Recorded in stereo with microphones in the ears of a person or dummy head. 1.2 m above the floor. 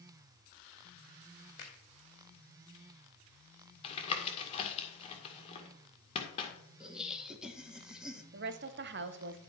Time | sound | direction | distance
1.6 | a finger snap | 60° left (ahead or behind) | 2 m
3.8 | tapping | 30° left (ahead or behind) | 1.8 m
6.8 | laughter | 5° right (ahead or behind) | 1.4 m
8.3 | a woman speaking | 50° right (ahead or behind) | 0.8 m